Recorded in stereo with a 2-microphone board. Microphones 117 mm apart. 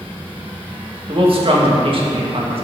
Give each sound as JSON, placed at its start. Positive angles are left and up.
{"t": 1.1, "sound": "a man speaking", "side_deg": -50, "distance_m": 1.9}